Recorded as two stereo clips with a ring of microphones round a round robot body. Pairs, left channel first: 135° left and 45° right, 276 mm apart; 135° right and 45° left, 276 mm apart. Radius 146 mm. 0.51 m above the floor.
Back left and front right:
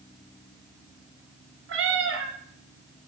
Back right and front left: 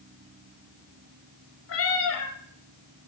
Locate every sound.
1.7 s a cat meowing: 90° right, 1.1 m